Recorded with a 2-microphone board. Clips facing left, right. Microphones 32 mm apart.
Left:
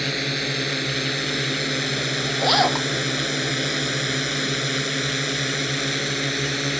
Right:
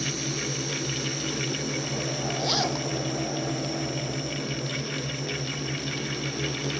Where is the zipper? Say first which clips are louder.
Left 9 dB; 40° left (ahead or behind).